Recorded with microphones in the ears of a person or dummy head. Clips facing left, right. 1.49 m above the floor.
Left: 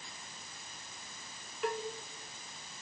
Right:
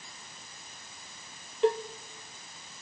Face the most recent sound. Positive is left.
turn(degrees=-20)  # may be behind; listen again after turning